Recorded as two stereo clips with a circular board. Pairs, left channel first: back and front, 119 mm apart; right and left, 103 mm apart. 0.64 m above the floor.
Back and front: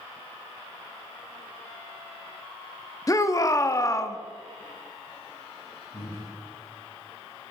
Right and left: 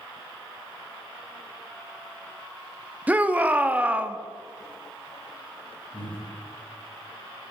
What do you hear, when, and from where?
3.1 s a shout: 150° left, 0.6 m
5.9 s breathing: 165° right, 4.5 m